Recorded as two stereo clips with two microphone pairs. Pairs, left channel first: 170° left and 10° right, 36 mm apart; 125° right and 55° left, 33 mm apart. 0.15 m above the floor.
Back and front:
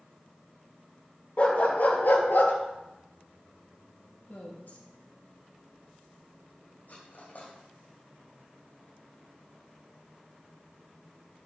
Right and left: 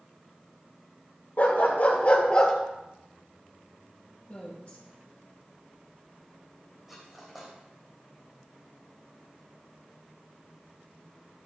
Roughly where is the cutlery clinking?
Behind left.